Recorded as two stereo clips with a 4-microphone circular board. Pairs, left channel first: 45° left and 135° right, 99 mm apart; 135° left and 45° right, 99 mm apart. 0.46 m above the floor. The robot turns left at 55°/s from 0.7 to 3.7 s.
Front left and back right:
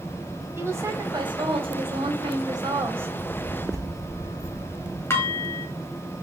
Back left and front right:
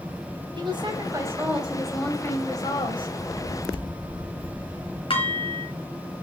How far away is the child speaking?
About 4.5 m.